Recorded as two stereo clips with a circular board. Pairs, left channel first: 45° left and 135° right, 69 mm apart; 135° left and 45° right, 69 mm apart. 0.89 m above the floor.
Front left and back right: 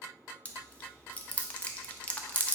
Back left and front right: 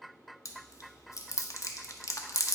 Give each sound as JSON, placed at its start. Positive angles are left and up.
{"t": 0.5, "sound": "chewing", "azimuth_deg": 110, "distance_m": 0.6}